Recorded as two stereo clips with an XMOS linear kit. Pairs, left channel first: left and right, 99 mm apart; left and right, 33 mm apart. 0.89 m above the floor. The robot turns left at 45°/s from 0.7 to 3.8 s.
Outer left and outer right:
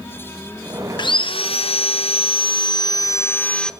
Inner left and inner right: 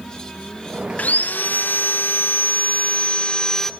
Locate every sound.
1.0 s sawing: 130° left, 0.6 m; by 3.7 s 5° left, 0.6 m